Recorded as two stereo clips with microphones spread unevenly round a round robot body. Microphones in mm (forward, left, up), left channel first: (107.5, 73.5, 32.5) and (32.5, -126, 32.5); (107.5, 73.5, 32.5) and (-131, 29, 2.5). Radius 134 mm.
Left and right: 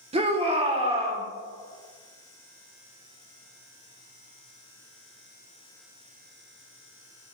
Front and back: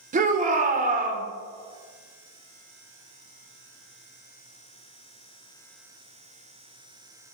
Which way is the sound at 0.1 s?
155° right.